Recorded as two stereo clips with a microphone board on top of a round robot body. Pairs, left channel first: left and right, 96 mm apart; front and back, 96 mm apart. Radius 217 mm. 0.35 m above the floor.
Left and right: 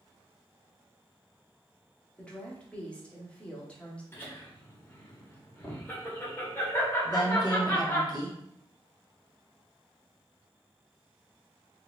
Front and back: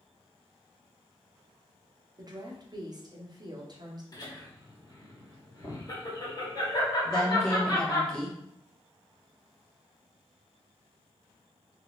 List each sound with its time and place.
2.2 s a woman speaking: 160° left, 1.2 m
4.1 s laughter: 30° left, 1.9 m
7.0 s a woman speaking: 80° left, 1.4 m